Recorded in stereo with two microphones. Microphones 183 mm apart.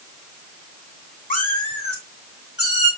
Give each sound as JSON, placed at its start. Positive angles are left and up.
{"t": 1.3, "sound": "a cat meowing", "side_deg": 45, "distance_m": 3.0}